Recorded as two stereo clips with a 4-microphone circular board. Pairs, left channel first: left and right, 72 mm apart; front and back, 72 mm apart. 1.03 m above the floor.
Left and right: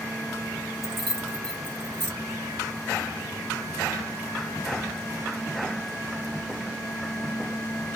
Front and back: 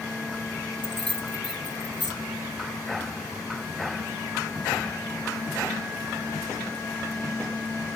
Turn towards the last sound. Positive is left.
turn(degrees=160)